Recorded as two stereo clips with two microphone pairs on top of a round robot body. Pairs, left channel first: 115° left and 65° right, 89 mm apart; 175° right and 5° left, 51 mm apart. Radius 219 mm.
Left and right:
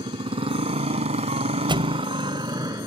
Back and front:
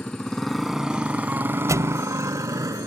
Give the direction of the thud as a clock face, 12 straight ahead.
1 o'clock.